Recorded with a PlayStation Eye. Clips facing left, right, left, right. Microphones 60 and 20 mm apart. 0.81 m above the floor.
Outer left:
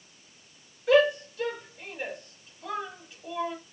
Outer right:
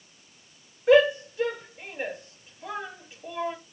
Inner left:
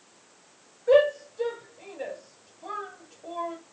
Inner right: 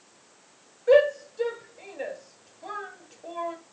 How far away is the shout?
About 4.5 m.